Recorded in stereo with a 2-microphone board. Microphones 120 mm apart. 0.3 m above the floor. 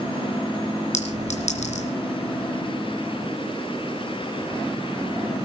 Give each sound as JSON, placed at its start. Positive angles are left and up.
{"t": 0.9, "sound": "a clink", "side_deg": 70, "distance_m": 3.5}